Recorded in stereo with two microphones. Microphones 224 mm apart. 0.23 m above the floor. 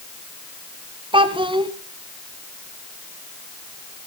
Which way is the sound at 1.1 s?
20° right (ahead or behind).